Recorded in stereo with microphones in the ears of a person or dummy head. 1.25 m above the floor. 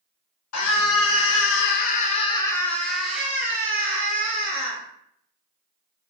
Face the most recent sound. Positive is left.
turn(degrees=-25)  # may be behind; listen again after turning